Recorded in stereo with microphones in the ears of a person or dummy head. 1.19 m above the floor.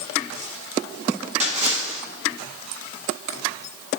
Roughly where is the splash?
Right.